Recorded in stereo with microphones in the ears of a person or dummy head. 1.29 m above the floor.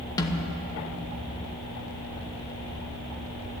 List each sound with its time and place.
0.2 s a snare drum: 20° left (ahead or behind), 1.4 m